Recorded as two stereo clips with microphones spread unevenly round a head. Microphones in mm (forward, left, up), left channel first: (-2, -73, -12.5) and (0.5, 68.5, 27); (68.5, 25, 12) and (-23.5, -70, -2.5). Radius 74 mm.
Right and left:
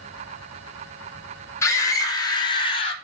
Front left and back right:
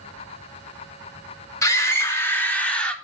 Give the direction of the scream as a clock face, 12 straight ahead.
1 o'clock.